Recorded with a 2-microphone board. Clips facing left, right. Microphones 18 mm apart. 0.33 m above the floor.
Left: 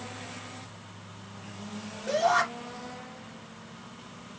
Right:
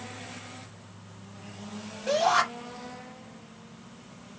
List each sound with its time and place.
2.1 s a shout: 50° right (ahead or behind), 1.9 m